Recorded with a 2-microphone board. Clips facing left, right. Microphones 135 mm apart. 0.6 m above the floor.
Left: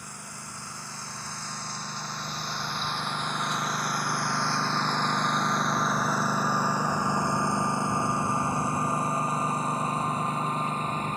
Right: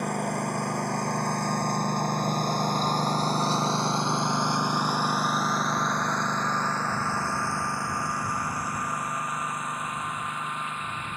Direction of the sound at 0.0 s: 75° right (ahead or behind).